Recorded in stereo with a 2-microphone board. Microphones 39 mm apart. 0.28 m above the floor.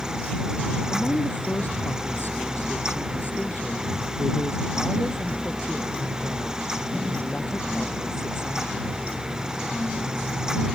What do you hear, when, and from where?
0.9 s a woman speaking: 55° left (ahead or behind)